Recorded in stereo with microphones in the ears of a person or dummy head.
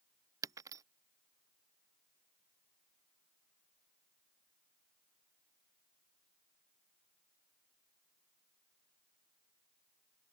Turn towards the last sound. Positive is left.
turn(degrees=-20)  # may be behind; listen again after turning